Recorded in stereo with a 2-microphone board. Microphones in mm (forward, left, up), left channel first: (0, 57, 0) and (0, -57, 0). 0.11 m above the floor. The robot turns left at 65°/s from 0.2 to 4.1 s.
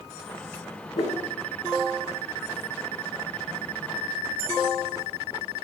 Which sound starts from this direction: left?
A whoosh, at 0.9 s.